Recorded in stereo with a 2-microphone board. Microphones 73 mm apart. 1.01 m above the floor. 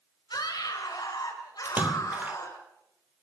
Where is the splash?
25° right (ahead or behind), 1.2 m.